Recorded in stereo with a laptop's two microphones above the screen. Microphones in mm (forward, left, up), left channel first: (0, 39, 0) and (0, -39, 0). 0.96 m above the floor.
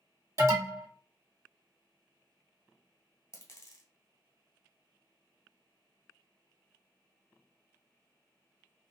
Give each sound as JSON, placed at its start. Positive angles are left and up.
{"t": 0.4, "sound": "an alarm", "side_deg": -40, "distance_m": 1.5}
{"t": 3.3, "sound": "a dropped coin", "side_deg": 40, "distance_m": 1.2}